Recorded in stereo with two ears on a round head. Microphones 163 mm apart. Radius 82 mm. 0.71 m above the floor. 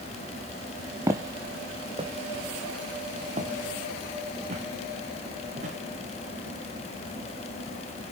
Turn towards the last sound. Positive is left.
turn(degrees=-40)  # may be behind; listen again after turning